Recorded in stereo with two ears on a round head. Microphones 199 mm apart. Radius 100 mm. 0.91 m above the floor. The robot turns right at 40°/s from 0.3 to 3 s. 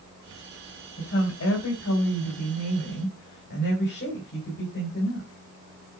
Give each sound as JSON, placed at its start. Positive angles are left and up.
{"t": 1.0, "sound": "a woman speaking", "azimuth_deg": 45, "distance_m": 3.5}